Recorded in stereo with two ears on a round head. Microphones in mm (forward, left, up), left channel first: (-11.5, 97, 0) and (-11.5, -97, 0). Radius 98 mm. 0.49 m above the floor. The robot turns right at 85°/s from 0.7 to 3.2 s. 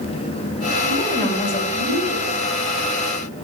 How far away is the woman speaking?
About 3.5 m.